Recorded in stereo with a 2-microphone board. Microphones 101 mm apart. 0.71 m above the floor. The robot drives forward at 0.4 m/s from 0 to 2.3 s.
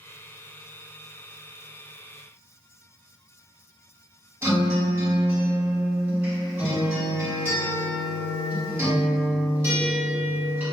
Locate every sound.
4.4 s a guitar: 20° right (ahead or behind), 1.5 m